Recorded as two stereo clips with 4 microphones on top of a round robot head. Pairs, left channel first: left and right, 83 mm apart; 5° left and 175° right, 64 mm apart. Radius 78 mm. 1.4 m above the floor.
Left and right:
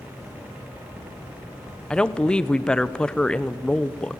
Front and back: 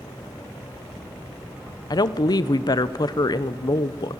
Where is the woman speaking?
10° left, 1.0 m.